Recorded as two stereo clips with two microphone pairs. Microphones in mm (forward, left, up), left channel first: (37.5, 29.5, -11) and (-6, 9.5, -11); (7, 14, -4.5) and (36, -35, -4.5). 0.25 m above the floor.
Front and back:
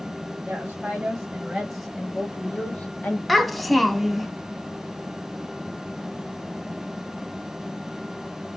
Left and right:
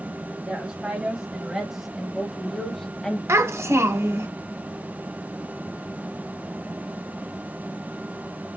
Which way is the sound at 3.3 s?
65° right.